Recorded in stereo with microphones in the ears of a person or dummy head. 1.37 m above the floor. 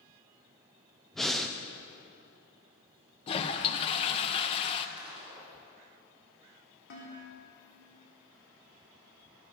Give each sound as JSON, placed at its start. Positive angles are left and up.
{"t": 1.1, "sound": "breathing", "side_deg": 0, "distance_m": 0.6}
{"t": 3.3, "sound": "a toilet flushing", "side_deg": 35, "distance_m": 0.8}
{"t": 5.0, "sound": "a gunshot", "side_deg": -5, "distance_m": 2.5}
{"t": 6.9, "sound": "dishes clattering", "side_deg": 60, "distance_m": 2.5}